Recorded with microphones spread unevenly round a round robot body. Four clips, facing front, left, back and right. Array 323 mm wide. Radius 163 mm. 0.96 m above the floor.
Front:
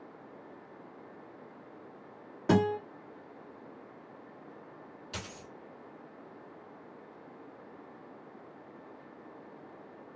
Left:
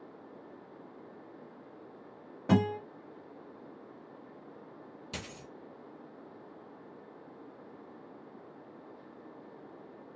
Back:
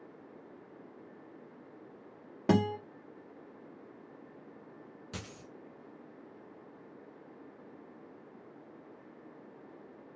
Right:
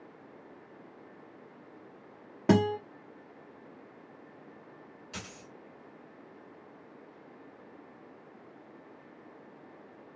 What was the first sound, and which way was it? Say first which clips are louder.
A guitar: right 3 dB, front 2 dB; 120° right.